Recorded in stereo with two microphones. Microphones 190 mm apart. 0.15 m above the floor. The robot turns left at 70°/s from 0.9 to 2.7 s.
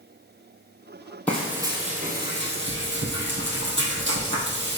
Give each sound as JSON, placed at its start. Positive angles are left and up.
{"t": 1.3, "sound": "frying", "azimuth_deg": 10, "distance_m": 2.0}